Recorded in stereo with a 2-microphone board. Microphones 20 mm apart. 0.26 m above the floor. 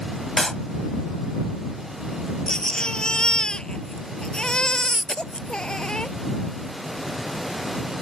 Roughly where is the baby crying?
Left.